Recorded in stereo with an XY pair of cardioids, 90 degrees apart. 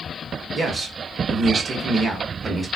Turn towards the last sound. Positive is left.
turn(degrees=-50)